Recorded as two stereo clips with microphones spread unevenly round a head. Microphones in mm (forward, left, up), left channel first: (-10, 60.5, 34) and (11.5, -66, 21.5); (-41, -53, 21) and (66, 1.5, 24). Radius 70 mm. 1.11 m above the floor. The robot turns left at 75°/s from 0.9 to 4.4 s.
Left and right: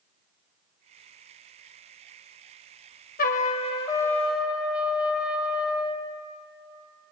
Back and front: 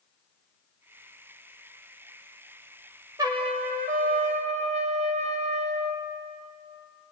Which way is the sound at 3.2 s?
90° left.